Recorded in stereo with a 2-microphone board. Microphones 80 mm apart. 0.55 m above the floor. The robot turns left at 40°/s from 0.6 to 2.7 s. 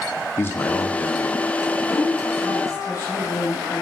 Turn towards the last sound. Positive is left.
turn(degrees=120)